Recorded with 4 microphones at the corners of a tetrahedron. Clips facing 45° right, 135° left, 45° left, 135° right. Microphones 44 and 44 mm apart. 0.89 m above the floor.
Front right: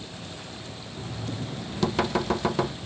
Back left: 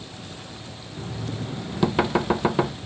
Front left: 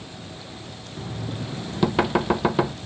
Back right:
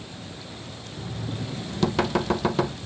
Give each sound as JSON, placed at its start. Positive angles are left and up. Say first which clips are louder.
{"t": 1.0, "sound": "knocking", "louder": "back left 2 dB, front left 1 dB", "azimuth_deg": 95, "distance_m": 0.5}